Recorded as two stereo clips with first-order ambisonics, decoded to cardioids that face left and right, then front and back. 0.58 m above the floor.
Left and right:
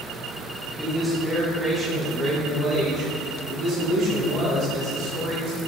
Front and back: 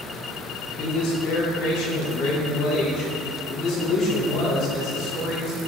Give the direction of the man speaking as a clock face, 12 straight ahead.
12 o'clock.